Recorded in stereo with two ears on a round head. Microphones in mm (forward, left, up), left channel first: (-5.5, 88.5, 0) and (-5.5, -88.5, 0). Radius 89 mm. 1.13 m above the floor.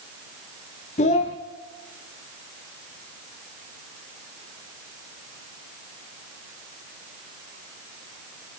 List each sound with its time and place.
1.0 s a child speaking: 35° left (ahead or behind), 0.7 m